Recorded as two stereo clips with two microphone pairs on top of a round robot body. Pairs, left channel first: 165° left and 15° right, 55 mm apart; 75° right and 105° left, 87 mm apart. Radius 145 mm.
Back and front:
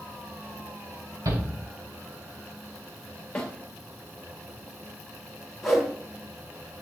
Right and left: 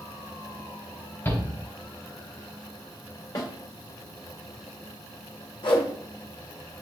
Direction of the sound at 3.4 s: 120° right.